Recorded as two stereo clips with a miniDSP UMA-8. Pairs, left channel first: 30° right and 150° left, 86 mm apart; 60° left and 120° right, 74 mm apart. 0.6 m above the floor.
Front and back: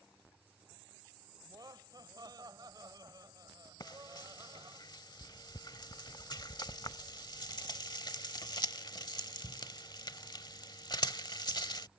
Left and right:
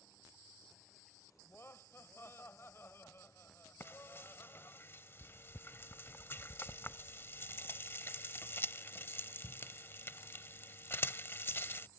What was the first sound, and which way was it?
Laughter, 115° left.